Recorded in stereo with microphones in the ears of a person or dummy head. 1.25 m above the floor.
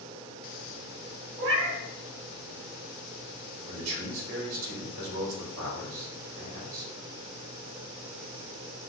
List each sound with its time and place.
1.4 s a cat meowing: 50° right (ahead or behind), 0.9 m
3.7 s a man speaking: 80° right, 1.4 m